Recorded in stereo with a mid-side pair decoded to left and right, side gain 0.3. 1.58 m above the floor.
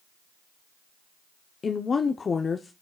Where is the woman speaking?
55° left, 0.7 m.